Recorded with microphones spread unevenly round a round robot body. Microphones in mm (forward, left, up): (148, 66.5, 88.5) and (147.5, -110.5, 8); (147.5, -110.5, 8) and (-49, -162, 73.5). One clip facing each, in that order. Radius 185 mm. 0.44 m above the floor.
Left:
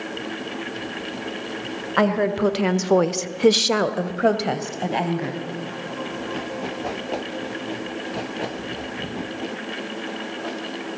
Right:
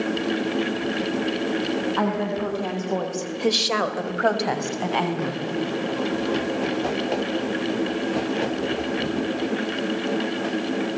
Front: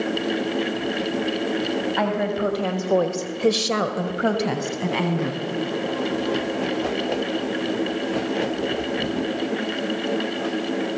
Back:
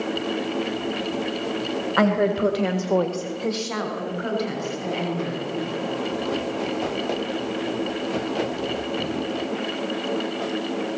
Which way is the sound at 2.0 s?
135° left.